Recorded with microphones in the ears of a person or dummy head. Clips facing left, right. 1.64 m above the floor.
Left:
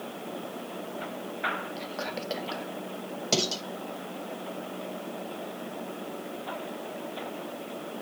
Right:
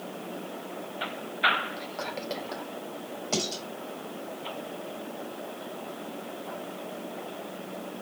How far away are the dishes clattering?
About 6.5 m.